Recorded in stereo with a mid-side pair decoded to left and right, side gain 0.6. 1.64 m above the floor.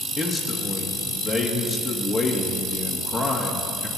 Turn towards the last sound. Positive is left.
turn(degrees=10)